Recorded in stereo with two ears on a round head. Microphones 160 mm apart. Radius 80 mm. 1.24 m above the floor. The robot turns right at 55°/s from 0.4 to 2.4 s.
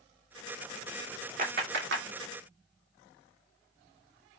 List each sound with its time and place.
1.4 s a clap: 45° right (ahead or behind), 2.5 m; by 2.1 s 80° right, 2.5 m